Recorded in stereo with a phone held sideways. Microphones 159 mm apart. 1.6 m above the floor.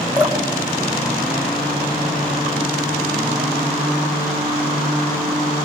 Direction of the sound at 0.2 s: 20° right (ahead or behind).